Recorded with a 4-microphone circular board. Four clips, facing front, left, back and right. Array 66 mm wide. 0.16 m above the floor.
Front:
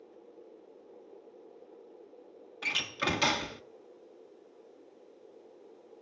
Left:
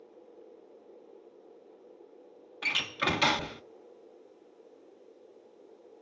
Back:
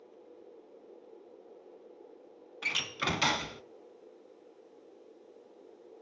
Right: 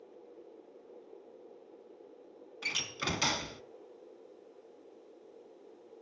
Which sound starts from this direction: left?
A door slam, at 2.6 s.